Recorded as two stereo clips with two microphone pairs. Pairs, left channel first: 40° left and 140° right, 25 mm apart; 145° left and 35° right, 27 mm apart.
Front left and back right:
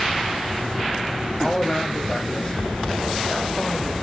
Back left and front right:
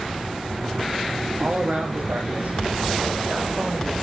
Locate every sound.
1.4 s a man speaking: 20° right, 4.5 m; by 3.9 s 10° right, 5.5 m